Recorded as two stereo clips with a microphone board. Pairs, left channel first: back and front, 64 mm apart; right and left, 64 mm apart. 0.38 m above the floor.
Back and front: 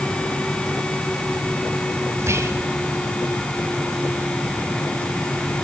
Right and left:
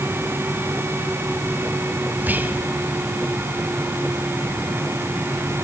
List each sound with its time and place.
2.2 s whispering: 30° left, 2 m